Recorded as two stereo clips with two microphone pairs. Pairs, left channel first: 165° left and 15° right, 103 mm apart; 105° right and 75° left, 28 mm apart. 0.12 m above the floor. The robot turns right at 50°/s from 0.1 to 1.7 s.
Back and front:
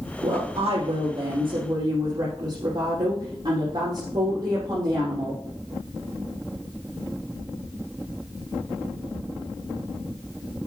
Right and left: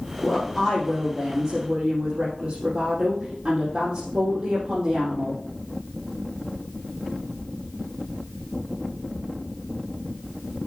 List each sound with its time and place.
0.2 s a woman speaking: 40° right, 4.5 m; by 5.4 s 35° left, 4.5 m